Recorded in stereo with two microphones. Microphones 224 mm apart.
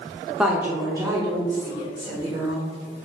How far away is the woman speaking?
About 0.7 m.